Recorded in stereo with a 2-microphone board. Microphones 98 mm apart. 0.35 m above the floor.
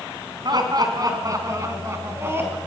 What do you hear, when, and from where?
0.5 s laughter: 45° right (ahead or behind), 4 m; by 2.6 s 20° right (ahead or behind), 4 m